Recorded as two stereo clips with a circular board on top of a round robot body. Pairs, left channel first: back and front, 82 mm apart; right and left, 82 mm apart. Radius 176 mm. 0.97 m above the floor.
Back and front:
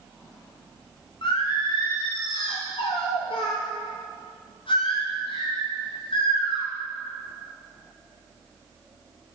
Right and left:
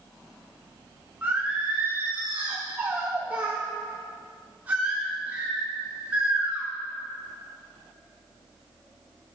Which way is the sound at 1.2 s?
160° left.